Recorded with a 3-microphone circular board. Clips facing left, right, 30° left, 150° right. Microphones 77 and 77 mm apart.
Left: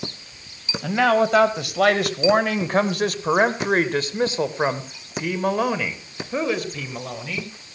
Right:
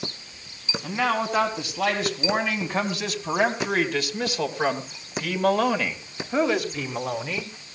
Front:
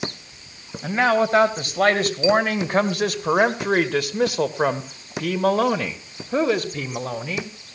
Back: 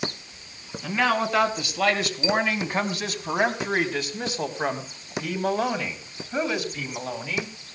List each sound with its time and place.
0.8 s a man speaking: 80° left, 3 m; by 7.5 s 15° right, 2.5 m